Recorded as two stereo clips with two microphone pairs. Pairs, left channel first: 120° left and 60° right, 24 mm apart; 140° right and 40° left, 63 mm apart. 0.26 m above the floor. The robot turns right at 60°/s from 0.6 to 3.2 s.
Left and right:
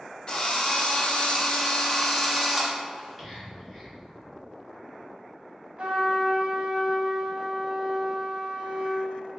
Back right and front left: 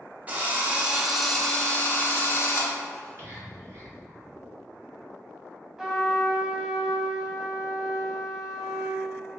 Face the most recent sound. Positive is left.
turn(degrees=-40)